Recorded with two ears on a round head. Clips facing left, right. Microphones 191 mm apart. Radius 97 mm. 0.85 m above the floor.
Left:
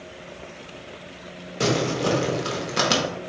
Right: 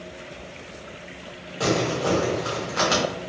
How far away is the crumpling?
About 0.7 m.